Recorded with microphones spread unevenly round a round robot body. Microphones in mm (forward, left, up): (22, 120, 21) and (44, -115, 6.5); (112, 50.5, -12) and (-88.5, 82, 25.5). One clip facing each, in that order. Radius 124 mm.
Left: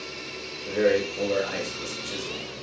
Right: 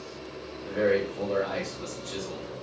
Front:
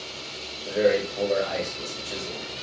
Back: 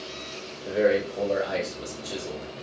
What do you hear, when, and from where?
0.7 s a man speaking: 100° left, 1.8 m